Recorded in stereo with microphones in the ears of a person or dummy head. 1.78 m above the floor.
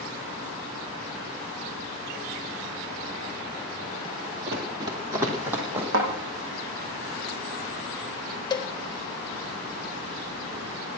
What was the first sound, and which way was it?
Running footsteps, 25° right (ahead or behind).